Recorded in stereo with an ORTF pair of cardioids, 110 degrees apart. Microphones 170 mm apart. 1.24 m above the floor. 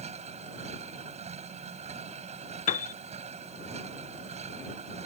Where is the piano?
45° left.